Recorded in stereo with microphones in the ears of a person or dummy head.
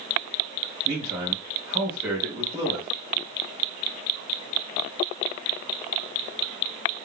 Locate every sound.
0.8 s a man speaking: 25° right (ahead or behind), 2.5 m